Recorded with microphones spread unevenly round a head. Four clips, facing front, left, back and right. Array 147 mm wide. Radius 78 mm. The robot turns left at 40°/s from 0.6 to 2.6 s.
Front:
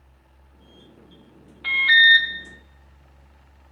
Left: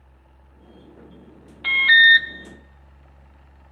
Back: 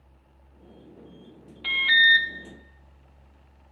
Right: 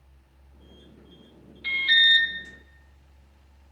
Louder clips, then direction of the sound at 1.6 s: Left 9 dB, front 4 dB; 105° left.